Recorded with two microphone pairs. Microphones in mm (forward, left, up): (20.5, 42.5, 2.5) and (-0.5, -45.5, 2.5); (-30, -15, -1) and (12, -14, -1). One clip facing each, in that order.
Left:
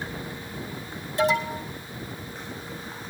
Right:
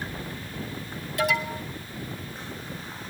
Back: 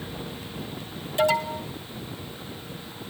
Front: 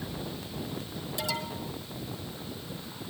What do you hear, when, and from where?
1.2 s an alarm: 135° left, 3 m